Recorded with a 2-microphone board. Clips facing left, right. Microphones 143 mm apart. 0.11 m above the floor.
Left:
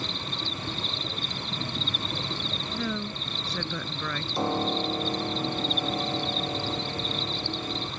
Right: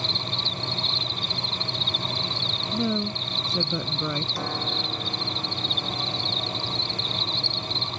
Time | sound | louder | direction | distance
0.0 | an insect | right 2 dB | 45° left (ahead or behind) | ?
2.7 | a woman speaking | right 7 dB | 25° right (ahead or behind) | ?
4.3 | a piano | left 5 dB | 25° left (ahead or behind) | ?